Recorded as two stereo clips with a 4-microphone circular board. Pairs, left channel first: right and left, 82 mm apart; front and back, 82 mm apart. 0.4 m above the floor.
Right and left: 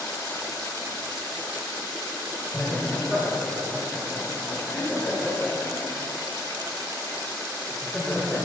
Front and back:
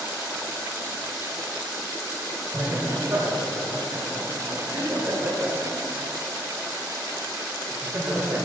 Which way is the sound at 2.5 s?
165° right.